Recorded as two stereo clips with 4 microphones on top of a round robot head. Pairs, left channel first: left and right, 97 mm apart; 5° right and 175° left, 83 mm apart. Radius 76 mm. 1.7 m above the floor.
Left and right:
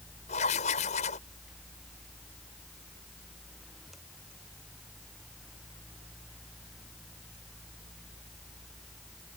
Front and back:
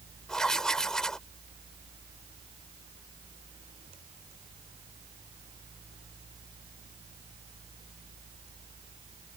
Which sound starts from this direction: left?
Writing, at 0.3 s.